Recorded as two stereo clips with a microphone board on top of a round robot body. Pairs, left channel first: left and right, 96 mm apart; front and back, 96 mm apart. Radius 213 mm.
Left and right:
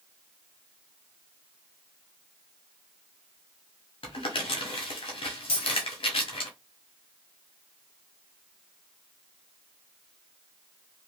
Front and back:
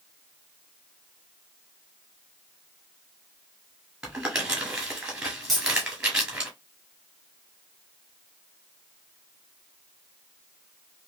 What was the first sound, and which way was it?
Crumpling, 100° left.